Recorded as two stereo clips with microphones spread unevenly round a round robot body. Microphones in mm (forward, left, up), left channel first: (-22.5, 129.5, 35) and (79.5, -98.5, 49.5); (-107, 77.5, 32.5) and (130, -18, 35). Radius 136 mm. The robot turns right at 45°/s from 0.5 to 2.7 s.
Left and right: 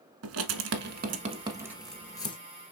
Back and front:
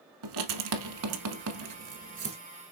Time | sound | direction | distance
0.2 | writing | 40° right | 1.2 m